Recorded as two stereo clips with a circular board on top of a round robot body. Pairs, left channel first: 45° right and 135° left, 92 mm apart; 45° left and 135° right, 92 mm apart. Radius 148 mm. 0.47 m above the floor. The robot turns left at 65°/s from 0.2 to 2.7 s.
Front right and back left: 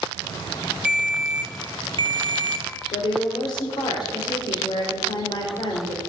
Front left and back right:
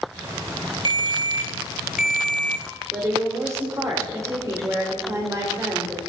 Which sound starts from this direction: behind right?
A ringtone, at 0.8 s.